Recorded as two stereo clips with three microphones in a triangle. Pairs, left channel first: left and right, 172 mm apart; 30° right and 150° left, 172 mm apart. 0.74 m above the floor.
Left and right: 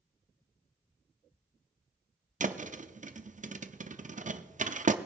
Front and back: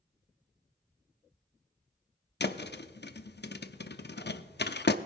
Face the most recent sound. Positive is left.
turn(degrees=-45)